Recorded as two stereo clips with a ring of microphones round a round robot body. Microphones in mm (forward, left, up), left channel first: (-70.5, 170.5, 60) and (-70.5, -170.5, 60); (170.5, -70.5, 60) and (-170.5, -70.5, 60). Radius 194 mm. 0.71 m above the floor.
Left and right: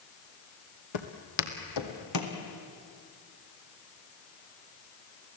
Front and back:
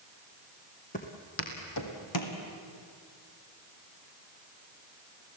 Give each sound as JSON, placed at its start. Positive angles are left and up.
{"t": 0.9, "sound": "footsteps", "azimuth_deg": 70, "distance_m": 1.9}